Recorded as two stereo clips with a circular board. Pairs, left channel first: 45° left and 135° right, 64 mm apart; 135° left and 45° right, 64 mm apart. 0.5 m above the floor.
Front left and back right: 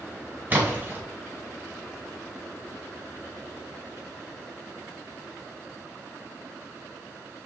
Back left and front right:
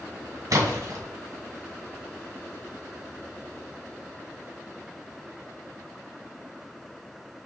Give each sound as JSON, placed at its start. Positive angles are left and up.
{"t": 0.5, "sound": "a splash", "azimuth_deg": -75, "distance_m": 2.0}